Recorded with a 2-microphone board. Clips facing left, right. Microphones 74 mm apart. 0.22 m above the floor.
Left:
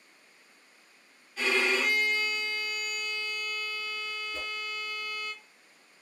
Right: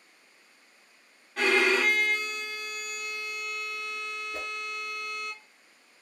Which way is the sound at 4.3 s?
40° right (ahead or behind).